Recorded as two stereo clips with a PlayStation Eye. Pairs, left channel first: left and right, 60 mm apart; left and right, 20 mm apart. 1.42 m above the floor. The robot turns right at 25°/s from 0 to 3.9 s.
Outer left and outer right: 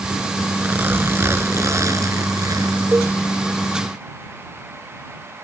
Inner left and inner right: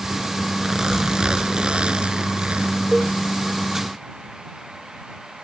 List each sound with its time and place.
0.6 s a zipper: 150° right; by 2.9 s 90° right
2.9 s a cowbell: 35° right (ahead or behind); by 3.2 s 45° right (ahead or behind)